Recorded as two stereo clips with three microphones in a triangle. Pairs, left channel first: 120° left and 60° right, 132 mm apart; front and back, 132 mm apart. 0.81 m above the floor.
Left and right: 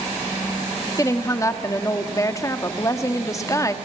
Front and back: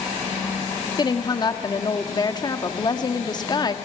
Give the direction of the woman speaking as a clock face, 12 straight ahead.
10 o'clock.